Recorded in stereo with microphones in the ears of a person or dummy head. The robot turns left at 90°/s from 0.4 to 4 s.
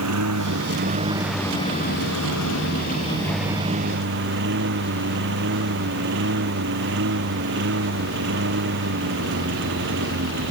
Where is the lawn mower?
90° right; by 10.5 s 55° right.